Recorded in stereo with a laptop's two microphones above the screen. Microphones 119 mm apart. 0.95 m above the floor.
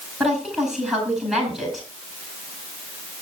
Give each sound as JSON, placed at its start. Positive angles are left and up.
{"t": 0.2, "sound": "a woman speaking", "side_deg": -5, "distance_m": 9.5}